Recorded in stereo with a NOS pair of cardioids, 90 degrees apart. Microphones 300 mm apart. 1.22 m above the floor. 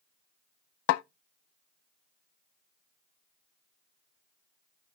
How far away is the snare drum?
About 0.6 m.